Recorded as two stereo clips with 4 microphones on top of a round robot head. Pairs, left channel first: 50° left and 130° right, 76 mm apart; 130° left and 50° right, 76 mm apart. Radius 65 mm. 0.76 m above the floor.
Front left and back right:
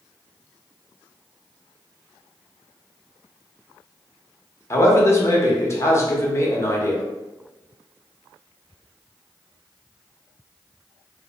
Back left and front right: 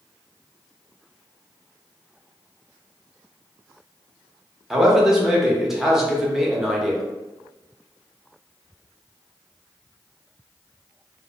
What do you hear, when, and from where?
4.7 s a man speaking: 35° left, 0.7 m